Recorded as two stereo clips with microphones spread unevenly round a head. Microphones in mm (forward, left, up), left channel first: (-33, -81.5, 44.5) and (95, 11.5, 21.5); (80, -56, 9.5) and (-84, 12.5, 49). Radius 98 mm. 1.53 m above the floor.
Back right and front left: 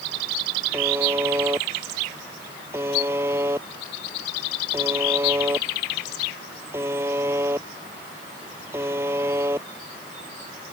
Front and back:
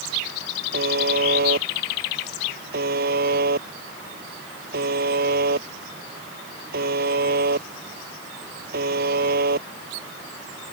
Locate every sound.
0.7 s a buzzer: 115° left